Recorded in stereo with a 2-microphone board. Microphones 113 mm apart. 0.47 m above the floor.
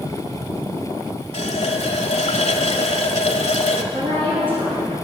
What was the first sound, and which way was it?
A running tap, 75° left (ahead or behind).